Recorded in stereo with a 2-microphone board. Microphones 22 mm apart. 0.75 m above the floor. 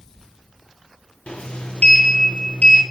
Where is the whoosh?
I don't hear a whoosh.